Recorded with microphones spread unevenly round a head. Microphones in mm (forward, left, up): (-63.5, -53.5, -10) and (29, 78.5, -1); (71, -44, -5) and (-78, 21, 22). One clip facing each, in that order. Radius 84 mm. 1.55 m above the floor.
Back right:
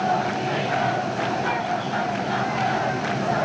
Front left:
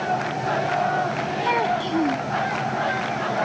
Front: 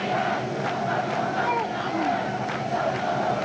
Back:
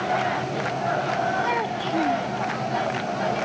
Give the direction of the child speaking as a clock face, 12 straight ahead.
9 o'clock.